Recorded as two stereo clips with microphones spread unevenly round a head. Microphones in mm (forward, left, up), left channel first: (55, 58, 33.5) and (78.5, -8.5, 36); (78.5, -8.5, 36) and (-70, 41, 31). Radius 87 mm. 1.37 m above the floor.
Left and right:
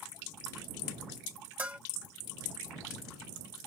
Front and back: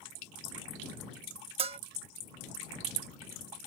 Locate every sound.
1.6 s a bell: 145° right